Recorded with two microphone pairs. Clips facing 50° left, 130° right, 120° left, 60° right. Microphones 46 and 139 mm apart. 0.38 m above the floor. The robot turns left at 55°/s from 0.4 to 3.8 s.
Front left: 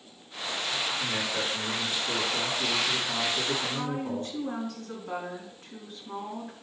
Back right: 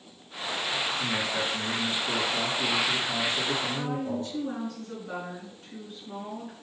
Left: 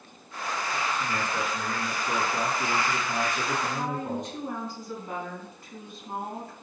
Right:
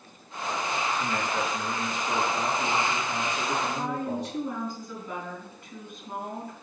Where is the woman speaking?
75° left, 4 m; by 6.5 s 70° left, 4 m.